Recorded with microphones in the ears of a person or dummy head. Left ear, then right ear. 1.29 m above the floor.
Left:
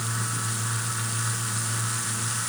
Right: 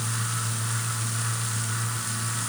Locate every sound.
Only background noise.